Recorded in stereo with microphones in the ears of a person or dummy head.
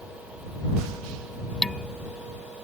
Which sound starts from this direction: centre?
Dishes clattering, at 1.6 s.